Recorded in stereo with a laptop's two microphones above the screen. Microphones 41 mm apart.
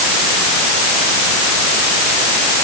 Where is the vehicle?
No vehicle in this recording.